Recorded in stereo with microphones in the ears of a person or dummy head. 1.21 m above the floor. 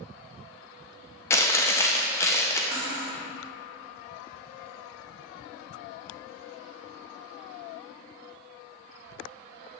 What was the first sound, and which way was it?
Chewing, 20° left (ahead or behind).